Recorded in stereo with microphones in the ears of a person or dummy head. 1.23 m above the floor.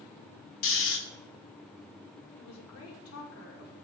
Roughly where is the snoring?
Left.